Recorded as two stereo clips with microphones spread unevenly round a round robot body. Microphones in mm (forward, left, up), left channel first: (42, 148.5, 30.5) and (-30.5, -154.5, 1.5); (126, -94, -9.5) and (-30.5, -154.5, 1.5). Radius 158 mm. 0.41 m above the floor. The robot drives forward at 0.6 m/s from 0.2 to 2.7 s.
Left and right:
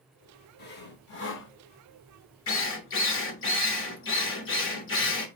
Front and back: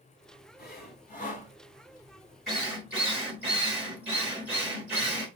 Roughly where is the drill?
Left.